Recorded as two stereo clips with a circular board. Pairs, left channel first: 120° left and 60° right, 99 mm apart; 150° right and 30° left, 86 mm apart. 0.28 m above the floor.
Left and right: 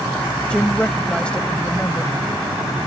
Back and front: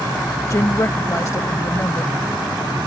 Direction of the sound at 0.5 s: 165° right.